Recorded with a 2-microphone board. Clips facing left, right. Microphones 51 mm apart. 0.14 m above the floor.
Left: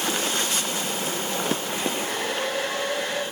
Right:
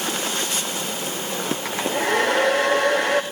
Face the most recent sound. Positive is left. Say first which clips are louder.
# right 5 dB
turn(degrees=-70)  # may be behind; listen again after turning